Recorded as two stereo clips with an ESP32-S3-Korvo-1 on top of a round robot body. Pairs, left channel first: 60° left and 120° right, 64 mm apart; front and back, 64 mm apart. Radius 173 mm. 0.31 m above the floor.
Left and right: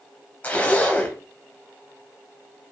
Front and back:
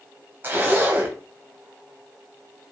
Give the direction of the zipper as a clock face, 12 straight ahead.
8 o'clock.